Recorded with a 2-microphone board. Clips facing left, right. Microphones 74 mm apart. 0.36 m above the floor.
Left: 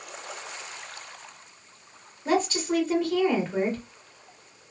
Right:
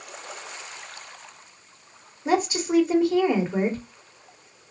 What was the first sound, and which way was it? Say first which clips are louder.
A woman speaking: right 2 dB; 10° right (ahead or behind).